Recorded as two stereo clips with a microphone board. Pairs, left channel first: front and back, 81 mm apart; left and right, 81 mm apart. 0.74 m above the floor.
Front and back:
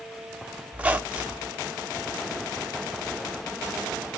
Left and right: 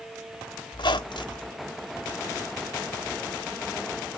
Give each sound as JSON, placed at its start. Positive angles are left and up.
{"t": 0.7, "sound": "a squeak", "azimuth_deg": 105, "distance_m": 0.6}